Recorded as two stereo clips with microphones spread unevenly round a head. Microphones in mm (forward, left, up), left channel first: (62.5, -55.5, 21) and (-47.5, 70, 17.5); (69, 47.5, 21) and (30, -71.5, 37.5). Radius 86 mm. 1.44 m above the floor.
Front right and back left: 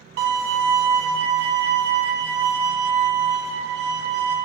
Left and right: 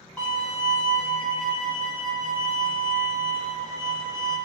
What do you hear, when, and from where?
0.2 s a violin: 160° left, 0.6 m